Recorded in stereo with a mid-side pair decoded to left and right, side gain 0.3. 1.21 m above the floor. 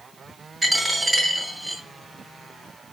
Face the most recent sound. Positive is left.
turn(degrees=-20)